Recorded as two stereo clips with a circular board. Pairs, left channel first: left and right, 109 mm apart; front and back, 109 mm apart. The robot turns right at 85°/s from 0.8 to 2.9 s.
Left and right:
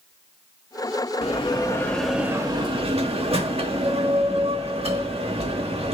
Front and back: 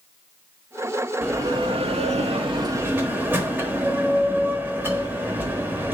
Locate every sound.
1.2 s a bell: 110° left, 0.8 m; by 5.9 s 110° right, 0.8 m